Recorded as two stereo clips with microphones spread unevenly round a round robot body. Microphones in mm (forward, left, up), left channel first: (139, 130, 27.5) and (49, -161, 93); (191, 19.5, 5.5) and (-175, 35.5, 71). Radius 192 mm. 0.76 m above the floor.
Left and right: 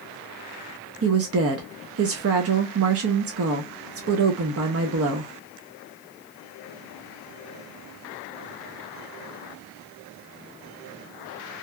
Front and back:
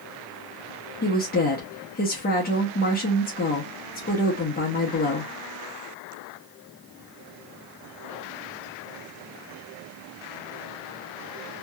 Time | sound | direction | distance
1.0 | a woman speaking | 55° right | 0.7 m